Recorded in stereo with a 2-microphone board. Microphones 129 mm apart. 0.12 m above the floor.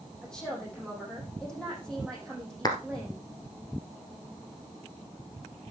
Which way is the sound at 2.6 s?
30° left (ahead or behind).